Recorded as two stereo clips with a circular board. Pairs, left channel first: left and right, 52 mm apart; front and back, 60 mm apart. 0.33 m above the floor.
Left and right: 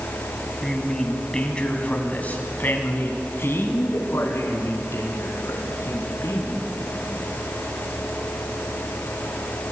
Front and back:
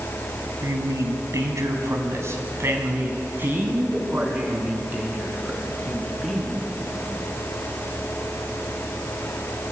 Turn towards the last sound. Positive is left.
turn(degrees=110)